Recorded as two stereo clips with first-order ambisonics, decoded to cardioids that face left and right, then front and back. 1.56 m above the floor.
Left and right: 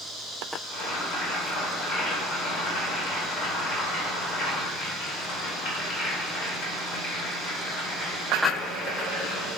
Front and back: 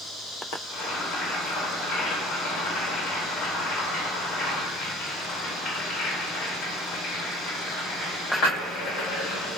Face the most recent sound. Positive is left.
turn(degrees=60)